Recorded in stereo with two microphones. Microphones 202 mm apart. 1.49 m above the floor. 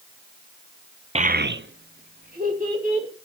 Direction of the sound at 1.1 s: 30° right (ahead or behind).